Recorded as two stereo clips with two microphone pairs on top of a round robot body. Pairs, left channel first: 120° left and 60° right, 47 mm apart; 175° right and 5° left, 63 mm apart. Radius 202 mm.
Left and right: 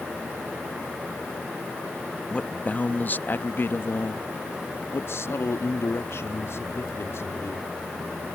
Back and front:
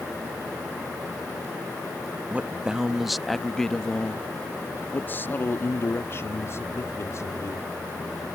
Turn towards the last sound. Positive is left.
turn(degrees=145)